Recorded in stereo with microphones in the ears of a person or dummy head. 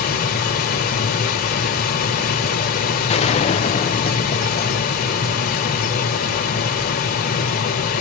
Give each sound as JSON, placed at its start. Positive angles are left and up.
{"t": 0.0, "sound": "a machine running", "side_deg": 45, "distance_m": 1.2}
{"t": 3.1, "sound": "a gunshot", "side_deg": 30, "distance_m": 0.5}